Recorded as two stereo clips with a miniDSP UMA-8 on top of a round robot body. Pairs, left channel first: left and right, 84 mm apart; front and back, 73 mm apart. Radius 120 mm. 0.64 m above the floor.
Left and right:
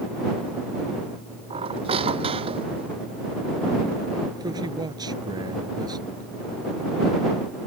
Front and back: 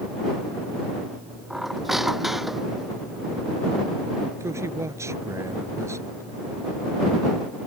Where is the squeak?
95° right.